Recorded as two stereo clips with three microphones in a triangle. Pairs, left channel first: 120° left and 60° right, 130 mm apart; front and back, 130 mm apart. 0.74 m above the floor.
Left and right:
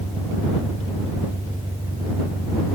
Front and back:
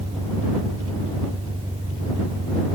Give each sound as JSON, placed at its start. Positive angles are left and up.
{"t": 0.0, "sound": "an engine running", "azimuth_deg": -130}